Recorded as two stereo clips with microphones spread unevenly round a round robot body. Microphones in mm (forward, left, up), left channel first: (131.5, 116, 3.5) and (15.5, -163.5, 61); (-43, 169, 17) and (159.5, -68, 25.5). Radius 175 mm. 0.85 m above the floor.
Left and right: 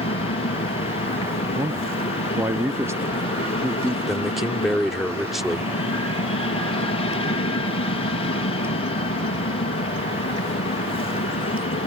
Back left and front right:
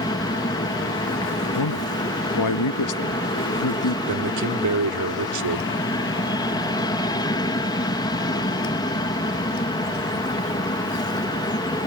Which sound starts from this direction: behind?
A man speaking, at 1.6 s.